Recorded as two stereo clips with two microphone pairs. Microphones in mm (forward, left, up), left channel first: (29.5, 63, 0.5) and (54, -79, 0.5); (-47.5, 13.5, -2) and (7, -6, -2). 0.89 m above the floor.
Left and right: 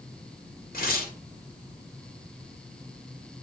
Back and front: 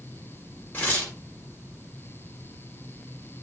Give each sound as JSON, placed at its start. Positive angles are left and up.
{"t": 0.7, "sound": "tearing paper", "azimuth_deg": 100, "distance_m": 1.8}